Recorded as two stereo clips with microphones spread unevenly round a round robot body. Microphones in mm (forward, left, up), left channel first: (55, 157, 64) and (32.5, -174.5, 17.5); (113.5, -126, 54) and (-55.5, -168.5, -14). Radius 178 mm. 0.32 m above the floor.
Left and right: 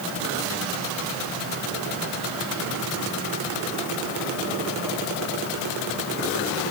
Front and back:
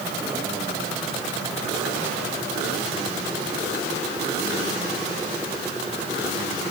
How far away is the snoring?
I don't hear snoring.